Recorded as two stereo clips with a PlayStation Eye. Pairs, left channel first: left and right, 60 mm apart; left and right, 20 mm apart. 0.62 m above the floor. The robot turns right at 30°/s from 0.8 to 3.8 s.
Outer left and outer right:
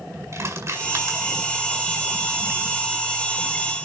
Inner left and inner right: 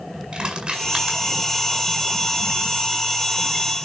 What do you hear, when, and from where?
0.3 s crushing: 55° right (ahead or behind), 6 m; by 1.2 s 65° right (ahead or behind), 6 m